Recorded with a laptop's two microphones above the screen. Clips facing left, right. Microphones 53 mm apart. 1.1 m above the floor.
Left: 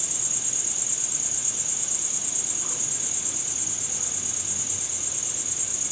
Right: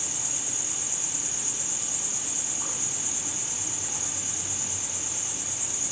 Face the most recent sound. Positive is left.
turn(degrees=-55)  # may be behind; listen again after turning